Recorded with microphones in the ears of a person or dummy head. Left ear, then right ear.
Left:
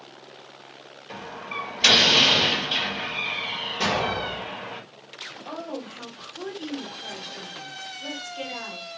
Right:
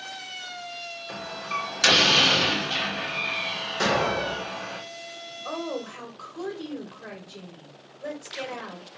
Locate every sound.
1.1 s a door slam: 55° right (ahead or behind), 3 m
3.8 s an explosion: 55° right (ahead or behind), 2.5 m
5.5 s a woman speaking: 70° right (ahead or behind), 3 m